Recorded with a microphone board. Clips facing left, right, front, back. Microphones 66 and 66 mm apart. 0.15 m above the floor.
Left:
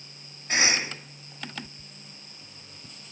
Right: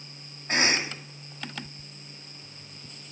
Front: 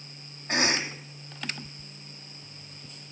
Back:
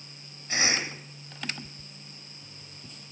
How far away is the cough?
About 7 m.